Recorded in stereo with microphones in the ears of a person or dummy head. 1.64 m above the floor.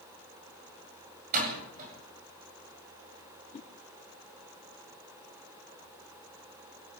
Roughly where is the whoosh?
Left.